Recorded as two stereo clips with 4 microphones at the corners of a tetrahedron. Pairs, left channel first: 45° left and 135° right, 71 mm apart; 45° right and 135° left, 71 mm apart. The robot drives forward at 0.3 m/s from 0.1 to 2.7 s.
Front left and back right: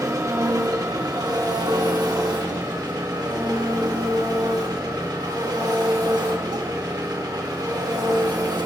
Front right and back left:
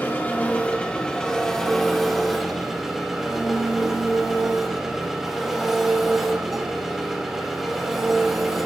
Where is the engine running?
105° right, 0.9 m; by 8.7 s 140° right, 1.3 m.